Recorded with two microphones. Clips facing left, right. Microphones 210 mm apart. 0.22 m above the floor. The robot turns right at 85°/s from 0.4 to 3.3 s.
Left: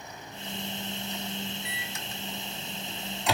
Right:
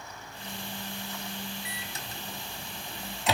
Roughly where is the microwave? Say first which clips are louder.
Left 1 dB; right.